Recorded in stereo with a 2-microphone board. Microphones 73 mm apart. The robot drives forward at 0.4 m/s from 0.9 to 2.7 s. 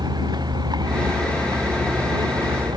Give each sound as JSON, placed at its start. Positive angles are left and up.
{"t": 0.0, "sound": "a vehicle", "side_deg": -70}